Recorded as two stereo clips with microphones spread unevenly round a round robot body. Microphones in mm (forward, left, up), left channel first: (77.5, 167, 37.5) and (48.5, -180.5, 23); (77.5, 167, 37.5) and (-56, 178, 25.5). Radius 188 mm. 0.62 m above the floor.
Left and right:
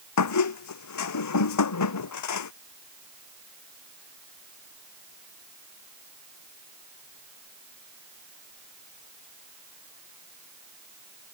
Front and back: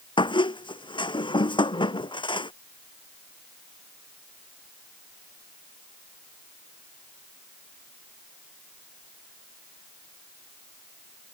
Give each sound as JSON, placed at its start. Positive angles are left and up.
{"t": 0.2, "sound": "a squeak", "azimuth_deg": 45}